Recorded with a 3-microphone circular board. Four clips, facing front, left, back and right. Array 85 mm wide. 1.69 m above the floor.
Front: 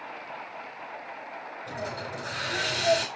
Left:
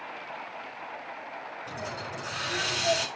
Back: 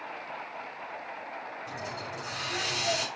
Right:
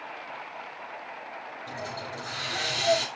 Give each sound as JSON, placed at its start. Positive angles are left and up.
{"t": 1.7, "sound": "a hiss", "azimuth_deg": 10, "distance_m": 5.5}